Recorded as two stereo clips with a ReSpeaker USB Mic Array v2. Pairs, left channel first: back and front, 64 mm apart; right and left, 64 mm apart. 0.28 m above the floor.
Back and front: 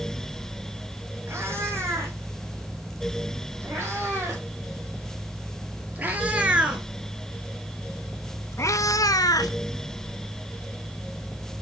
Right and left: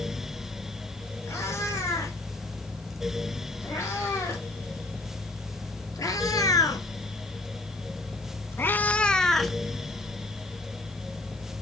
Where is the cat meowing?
50° right, 4.5 m; by 9.6 s straight behind, 1.0 m.